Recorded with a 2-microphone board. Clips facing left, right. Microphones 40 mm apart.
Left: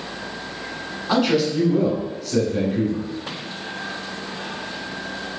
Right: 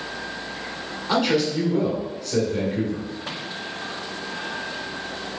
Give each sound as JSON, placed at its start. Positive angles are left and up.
{"t": 1.1, "sound": "a man speaking", "side_deg": 10, "distance_m": 1.2}